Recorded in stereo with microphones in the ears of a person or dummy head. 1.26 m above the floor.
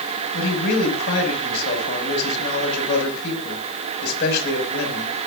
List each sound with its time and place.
0.3 s a man speaking: 55° left (ahead or behind), 6 m